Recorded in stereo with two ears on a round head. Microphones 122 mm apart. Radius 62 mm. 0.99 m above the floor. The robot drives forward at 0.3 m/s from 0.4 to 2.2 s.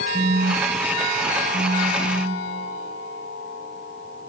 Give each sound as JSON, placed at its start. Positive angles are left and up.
{"t": 0.1, "sound": "a phone buzzing", "side_deg": -55, "distance_m": 0.7}